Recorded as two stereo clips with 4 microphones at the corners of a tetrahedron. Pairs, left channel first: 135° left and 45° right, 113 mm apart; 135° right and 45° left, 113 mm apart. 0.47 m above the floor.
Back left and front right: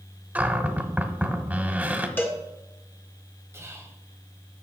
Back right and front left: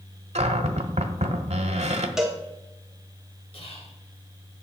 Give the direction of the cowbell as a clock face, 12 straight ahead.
8 o'clock.